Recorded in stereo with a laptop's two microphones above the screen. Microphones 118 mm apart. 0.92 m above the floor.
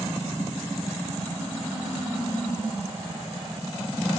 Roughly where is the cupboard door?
No cupboard door in this recording.